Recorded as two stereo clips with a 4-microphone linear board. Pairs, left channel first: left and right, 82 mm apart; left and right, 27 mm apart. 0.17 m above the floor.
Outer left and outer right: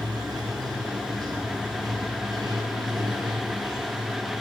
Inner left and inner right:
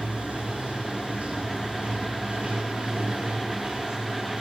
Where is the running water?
55° right (ahead or behind), 2.5 m.